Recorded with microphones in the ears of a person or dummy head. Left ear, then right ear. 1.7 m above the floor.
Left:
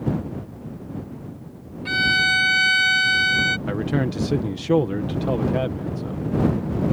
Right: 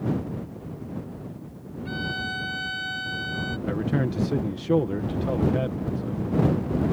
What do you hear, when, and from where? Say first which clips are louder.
1.9 s a violin: left 12 dB; 40° left (ahead or behind)
3.7 s a man speaking: left 3 dB; 20° left (ahead or behind)